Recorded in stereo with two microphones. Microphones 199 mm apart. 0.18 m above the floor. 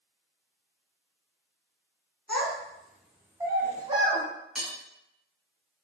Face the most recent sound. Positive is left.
turn(degrees=0)  # may be behind; listen again after turning